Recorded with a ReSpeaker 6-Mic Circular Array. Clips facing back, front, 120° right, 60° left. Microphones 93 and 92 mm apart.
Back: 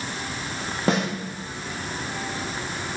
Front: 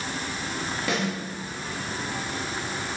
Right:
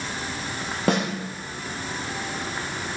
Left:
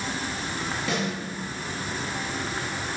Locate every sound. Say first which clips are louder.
0.9 s a snare drum: back 5 dB, right 7 dB; 140° right, 1.8 m